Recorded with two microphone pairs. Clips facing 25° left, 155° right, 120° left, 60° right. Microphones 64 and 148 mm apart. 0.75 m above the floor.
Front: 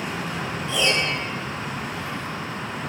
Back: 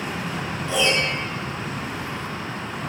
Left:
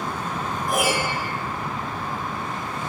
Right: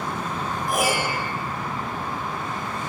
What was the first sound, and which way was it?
A piano, 175° right.